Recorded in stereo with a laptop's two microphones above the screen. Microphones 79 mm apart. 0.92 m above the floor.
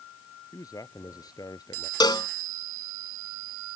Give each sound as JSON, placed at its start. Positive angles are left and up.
{"t": 0.5, "sound": "a man speaking", "side_deg": 45}
{"t": 2.0, "sound": "a cowbell", "side_deg": 60}